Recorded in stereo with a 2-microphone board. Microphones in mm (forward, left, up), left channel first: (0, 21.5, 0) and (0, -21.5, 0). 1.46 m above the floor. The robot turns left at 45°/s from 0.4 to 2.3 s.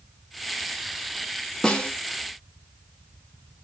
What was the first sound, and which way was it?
A snare drum, 20° left (ahead or behind).